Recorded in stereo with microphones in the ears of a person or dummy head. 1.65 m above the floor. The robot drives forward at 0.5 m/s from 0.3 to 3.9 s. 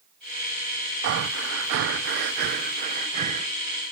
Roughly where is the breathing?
Right.